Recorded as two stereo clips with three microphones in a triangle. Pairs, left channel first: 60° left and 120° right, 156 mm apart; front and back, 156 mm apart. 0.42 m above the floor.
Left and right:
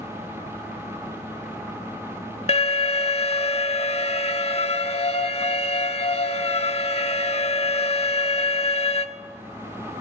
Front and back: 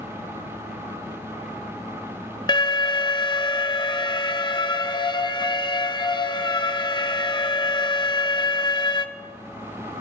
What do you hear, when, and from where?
2.5 s an alarm: 45° left, 0.6 m